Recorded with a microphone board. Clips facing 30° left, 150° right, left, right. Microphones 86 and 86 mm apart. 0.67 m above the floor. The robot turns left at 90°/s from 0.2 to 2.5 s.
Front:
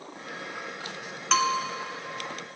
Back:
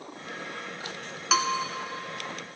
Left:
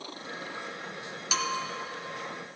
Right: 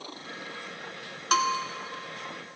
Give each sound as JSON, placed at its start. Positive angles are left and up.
{"t": 1.3, "sound": "a bell", "azimuth_deg": -65, "distance_m": 1.1}